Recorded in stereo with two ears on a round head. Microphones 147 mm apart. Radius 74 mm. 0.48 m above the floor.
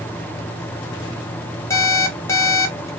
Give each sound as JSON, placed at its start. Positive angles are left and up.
{"t": 1.7, "sound": "an alarm clock", "side_deg": 20, "distance_m": 1.2}